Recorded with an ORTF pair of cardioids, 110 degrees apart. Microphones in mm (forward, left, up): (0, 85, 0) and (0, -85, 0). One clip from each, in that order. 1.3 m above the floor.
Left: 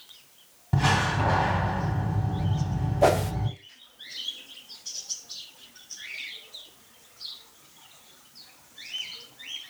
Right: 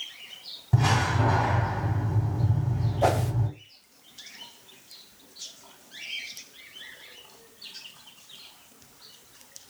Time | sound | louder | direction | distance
0.7 | a door slam | left 1 dB | 5° left | 2.5 m
3.0 | a whoosh | left 3 dB | 15° left | 0.7 m